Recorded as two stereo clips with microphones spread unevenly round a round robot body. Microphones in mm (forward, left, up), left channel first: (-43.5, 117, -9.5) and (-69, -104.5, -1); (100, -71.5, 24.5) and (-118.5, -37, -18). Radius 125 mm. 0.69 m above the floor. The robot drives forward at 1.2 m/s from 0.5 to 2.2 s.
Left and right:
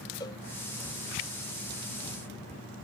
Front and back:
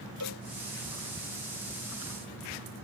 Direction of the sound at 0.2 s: 5° left.